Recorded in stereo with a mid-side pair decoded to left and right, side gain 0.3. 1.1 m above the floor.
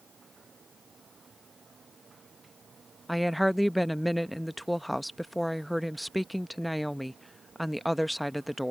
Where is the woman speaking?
5° right.